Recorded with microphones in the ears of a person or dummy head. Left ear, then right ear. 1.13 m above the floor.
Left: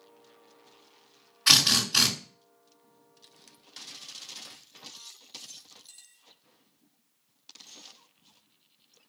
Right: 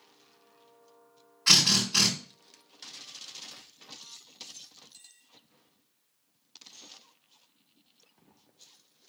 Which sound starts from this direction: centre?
A drill, at 1.5 s.